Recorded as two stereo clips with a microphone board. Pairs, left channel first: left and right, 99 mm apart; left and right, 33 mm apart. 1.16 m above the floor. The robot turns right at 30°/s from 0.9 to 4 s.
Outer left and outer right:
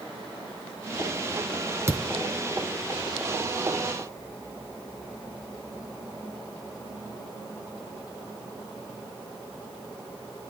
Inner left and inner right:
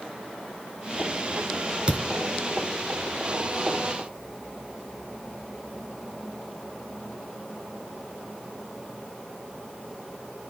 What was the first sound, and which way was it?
A thud, 30° right (ahead or behind).